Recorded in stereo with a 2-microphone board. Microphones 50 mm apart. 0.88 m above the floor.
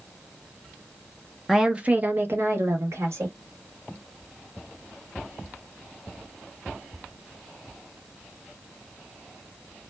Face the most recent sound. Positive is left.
turn(degrees=-70)  # may be behind; listen again after turning